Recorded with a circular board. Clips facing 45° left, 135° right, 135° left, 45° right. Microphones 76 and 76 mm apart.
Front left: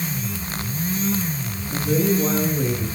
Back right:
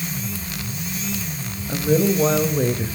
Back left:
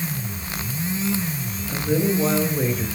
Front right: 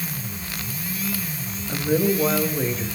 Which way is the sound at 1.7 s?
115° right.